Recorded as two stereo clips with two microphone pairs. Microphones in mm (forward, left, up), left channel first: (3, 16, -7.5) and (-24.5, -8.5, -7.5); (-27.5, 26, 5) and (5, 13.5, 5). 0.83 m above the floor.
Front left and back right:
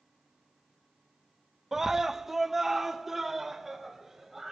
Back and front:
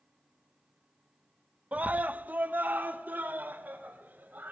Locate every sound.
1.7 s a scream: 60° right, 0.7 m; by 4.5 s 55° right, 4 m